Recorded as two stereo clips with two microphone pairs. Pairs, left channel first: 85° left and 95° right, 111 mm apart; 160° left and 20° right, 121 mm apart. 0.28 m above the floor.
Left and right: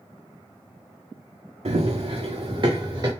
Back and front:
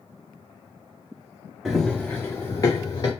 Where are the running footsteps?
110° right, 0.7 m; by 3.1 s 150° right, 1.4 m.